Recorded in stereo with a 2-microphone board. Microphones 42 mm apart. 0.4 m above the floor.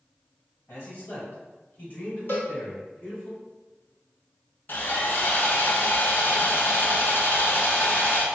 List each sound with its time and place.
0.7 s a man speaking: 55° left (ahead or behind), 1.8 m; by 3.3 s 35° left (ahead or behind), 2.5 m
2.3 s a cowbell: 60° left (ahead or behind), 1.4 m
4.7 s sawing: 55° left (ahead or behind), 0.9 m